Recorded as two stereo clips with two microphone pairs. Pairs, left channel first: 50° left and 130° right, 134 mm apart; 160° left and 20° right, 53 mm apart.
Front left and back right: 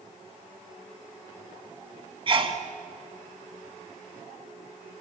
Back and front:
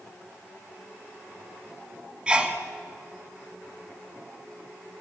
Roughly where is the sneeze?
Right.